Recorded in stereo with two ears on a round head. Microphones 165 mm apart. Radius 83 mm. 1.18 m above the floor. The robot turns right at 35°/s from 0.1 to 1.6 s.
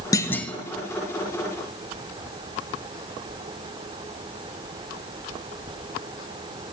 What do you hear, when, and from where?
0.1 s a clunk: 20° left (ahead or behind), 0.7 m; by 0.5 s 5° left (ahead or behind), 0.7 m